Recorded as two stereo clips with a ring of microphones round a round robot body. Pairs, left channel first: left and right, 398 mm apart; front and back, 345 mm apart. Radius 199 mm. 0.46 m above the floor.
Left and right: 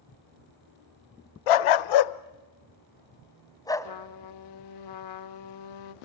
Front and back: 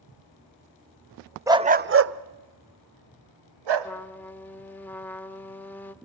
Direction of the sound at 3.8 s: 85° left.